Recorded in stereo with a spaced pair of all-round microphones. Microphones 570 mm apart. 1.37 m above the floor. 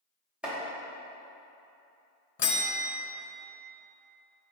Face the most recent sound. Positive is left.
turn(degrees=50)  # may be behind; listen again after turning